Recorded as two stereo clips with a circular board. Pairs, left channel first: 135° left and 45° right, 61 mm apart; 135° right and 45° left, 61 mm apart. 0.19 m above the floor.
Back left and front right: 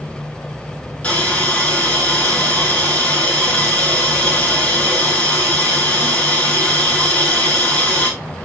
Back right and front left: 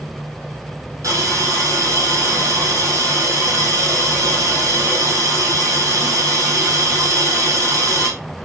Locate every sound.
1.0 s a hiss: 65° left, 3 m